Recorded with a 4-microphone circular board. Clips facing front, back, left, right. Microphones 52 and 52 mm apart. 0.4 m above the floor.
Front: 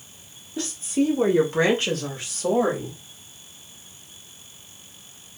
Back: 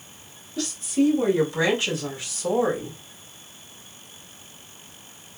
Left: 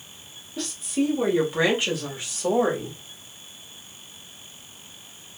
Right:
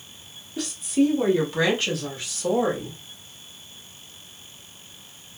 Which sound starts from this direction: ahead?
A woman speaking, at 0.6 s.